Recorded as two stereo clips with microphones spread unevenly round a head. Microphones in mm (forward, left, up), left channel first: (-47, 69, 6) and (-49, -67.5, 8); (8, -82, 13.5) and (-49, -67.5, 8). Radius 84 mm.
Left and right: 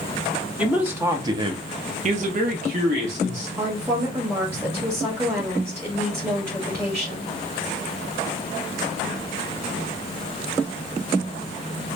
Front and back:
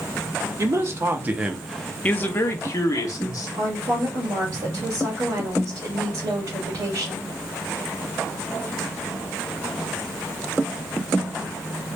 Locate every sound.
0.6 s a man speaking: 175° right, 1.1 m; by 3.5 s 40° right, 1.5 m
3.6 s a woman speaking: 170° right, 1.6 m